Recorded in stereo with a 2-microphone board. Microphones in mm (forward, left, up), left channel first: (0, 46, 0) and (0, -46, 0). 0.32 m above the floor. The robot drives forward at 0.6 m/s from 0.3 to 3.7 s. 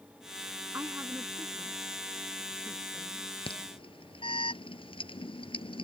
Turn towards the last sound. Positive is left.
turn(degrees=75)  # may be behind; listen again after turning